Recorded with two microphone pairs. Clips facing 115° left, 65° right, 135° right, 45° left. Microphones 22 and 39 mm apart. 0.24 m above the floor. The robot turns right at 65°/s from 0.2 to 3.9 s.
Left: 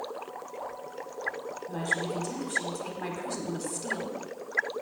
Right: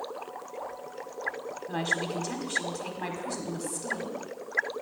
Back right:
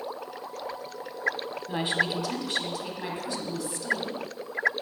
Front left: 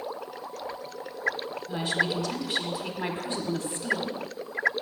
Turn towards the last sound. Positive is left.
turn(degrees=55)